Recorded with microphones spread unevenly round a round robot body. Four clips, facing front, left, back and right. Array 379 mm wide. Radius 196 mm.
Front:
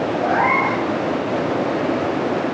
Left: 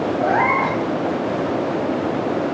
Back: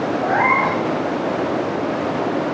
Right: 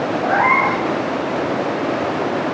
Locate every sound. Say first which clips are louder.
0.2 s a cat meowing: right 2 dB, back 1 dB; 105° left, 2 m